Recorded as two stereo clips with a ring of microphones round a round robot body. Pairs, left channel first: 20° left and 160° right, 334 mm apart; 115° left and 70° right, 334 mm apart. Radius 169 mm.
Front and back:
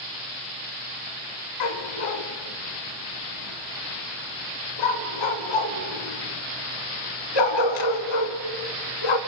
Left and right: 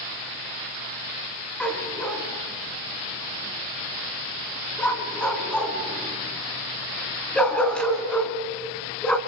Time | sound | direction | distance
1.6 | a dog barking | 25° left | 2.0 m